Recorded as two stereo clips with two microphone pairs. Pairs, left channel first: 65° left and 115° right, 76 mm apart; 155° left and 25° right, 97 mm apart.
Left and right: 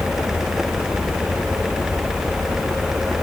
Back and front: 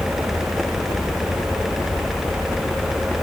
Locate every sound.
Only background noise.